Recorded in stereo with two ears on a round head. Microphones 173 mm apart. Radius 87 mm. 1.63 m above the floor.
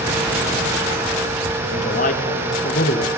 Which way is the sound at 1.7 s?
40° left (ahead or behind).